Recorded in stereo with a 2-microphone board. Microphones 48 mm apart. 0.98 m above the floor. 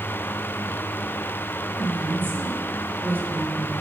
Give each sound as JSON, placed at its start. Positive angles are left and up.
{"t": 1.8, "sound": "a woman speaking", "side_deg": -50, "distance_m": 4.0}